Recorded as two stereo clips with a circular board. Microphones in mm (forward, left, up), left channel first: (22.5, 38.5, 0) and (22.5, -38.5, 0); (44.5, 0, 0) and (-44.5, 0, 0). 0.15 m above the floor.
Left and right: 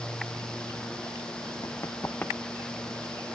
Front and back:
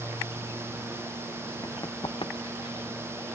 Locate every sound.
1.6 s running footsteps: 55° left, 1.3 m; by 2.9 s 5° right, 1.9 m